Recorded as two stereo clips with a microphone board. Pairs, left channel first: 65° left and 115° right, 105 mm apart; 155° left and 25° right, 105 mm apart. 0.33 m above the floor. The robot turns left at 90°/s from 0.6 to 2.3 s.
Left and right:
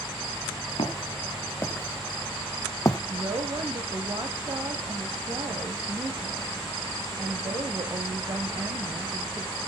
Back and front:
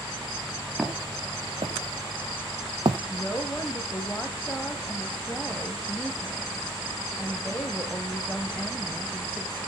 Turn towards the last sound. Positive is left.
turn(degrees=-135)